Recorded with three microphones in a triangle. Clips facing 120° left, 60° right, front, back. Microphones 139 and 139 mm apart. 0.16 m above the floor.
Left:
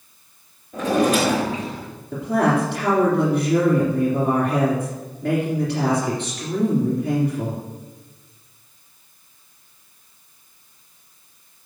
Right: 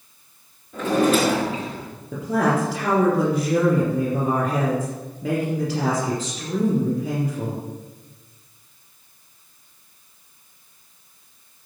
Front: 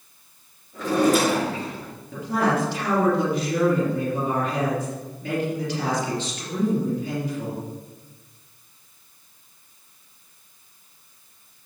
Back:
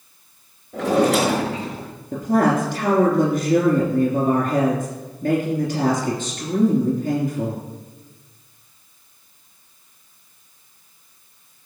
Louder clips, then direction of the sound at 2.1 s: Left 2 dB, back 5 dB; 145° right.